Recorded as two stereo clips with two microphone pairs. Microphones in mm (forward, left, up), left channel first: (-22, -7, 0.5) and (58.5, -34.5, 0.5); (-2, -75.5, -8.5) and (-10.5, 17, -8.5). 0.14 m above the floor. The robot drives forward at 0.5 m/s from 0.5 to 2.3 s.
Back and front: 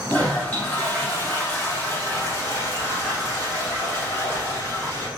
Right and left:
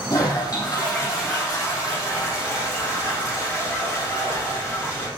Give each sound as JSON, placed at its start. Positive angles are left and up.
{"t": 0.1, "sound": "a toilet flushing", "azimuth_deg": -130, "distance_m": 4.0}